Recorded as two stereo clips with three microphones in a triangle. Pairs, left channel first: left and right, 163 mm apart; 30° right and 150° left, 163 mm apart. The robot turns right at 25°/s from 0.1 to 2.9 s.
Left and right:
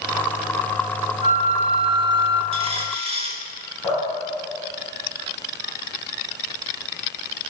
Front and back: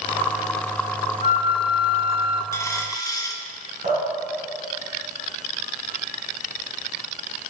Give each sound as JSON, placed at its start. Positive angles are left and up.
{"t": 1.2, "sound": "a flute", "azimuth_deg": -50, "distance_m": 0.7}
{"t": 2.5, "sound": "a dropped coin", "azimuth_deg": -90, "distance_m": 1.0}
{"t": 3.8, "sound": "dripping", "azimuth_deg": 160, "distance_m": 4.5}